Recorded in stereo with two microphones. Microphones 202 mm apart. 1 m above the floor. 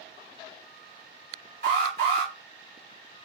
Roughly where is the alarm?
Right.